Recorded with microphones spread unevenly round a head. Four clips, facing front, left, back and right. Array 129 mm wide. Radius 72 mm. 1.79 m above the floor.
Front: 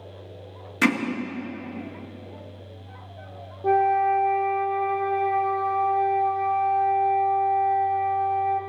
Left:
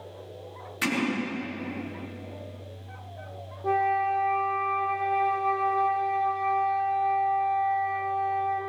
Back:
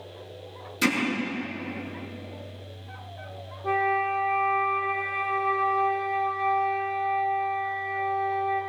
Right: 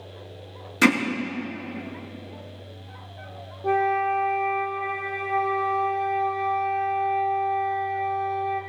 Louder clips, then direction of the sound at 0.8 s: Right 10 dB, front 4 dB; 65° right.